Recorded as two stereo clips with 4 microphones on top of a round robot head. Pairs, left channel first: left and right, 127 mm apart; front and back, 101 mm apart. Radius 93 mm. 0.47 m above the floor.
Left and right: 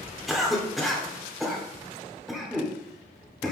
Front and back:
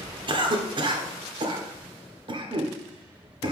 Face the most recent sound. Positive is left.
turn(degrees=180)